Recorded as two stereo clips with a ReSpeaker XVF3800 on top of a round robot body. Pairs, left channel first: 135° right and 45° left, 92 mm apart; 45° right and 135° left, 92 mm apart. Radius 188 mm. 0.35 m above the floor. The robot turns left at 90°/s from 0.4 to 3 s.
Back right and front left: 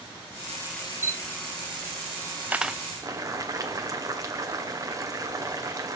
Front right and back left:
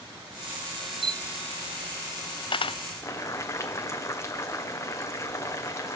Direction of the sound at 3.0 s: 5° left.